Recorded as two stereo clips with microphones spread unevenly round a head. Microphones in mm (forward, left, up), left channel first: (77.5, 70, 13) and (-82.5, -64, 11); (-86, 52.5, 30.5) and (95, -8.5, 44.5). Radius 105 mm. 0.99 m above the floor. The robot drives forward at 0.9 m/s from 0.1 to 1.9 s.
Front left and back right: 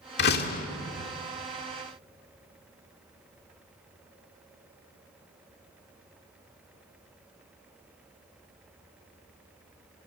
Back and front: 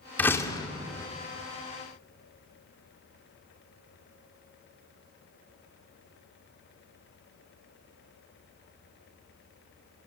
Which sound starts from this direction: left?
A door slam, at 0.2 s.